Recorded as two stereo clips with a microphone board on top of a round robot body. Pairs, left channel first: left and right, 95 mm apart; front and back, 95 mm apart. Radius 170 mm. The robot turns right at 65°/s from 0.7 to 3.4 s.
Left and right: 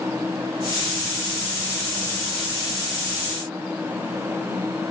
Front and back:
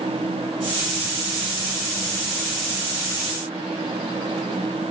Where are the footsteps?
I don't hear footsteps.